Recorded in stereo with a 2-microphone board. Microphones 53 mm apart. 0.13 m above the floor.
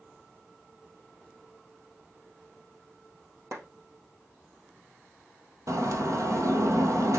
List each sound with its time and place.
3.5 s a clap: 70° right (ahead or behind), 2.5 m
5.7 s a bird: 70° right (ahead or behind), 2 m